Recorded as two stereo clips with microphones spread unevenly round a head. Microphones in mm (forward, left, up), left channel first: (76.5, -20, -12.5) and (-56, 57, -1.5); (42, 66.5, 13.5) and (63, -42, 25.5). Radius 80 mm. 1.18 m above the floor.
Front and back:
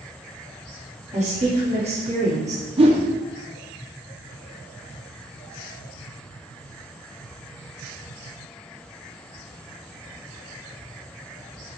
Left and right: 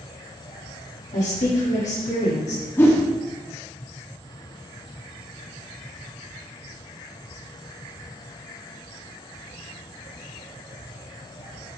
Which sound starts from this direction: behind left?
A whoosh, at 2.8 s.